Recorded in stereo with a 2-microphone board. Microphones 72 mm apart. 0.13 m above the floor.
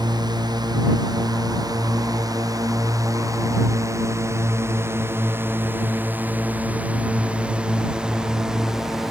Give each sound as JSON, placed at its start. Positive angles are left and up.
{"t": 0.0, "sound": "a drone", "side_deg": -75}